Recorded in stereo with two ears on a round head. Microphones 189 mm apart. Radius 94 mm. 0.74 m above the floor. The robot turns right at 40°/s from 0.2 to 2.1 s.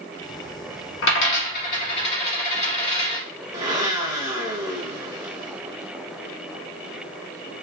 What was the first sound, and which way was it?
A dropped coin, 65° left (ahead or behind).